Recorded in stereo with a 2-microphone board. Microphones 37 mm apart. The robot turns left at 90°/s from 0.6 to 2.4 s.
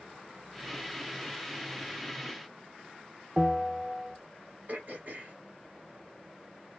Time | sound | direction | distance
3.4 | a bell | 5° right (ahead or behind) | 0.6 m
4.7 | throat clearing | 50° right (ahead or behind) | 1.2 m